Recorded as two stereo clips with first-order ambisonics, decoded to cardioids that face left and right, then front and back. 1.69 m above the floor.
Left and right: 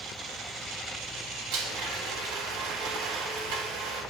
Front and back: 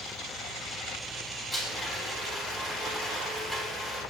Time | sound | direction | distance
1.5 | a blender | 75° right | 2.5 m